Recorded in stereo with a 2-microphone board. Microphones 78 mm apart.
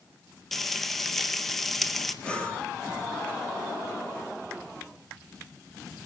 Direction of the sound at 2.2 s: 15° left (ahead or behind).